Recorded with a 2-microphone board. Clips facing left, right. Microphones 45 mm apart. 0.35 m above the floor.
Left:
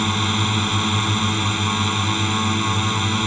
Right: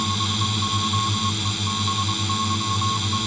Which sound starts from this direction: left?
A drone, at 0.0 s.